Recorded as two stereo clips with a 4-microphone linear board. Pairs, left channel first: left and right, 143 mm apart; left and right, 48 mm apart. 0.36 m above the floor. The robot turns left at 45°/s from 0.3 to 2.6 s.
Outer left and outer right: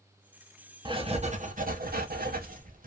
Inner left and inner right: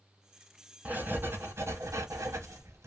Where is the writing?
30° right, 0.7 m; by 2.9 s 110° right, 0.7 m.